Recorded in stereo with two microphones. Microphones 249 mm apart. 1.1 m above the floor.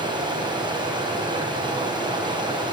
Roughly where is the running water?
Centre.